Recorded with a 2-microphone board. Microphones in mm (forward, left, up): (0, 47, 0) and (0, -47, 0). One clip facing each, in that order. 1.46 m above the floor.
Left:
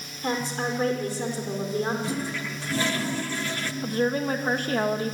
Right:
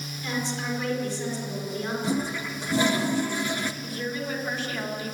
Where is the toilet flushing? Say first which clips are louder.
Right 2 dB; 20° right (ahead or behind), 1.0 m.